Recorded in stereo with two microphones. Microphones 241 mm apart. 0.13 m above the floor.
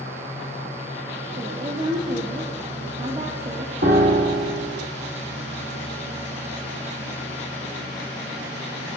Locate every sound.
1.4 s a woman speaking: 30° right (ahead or behind), 4.5 m
3.8 s a piano: 45° right (ahead or behind), 4 m